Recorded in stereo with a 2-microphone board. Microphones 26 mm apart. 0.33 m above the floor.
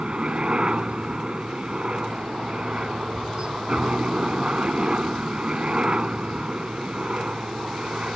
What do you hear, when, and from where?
0.0 s a helicopter: 40° right (ahead or behind)